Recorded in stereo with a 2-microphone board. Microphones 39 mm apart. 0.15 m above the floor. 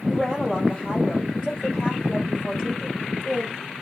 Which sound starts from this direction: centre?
A woman speaking, at 0.1 s.